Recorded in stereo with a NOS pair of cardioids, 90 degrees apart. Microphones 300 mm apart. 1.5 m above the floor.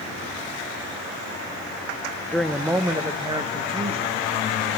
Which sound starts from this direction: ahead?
A woman speaking, at 2.3 s.